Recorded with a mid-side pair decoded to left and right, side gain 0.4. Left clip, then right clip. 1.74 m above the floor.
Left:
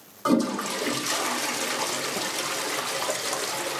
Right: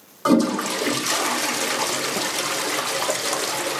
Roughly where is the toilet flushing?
Ahead right.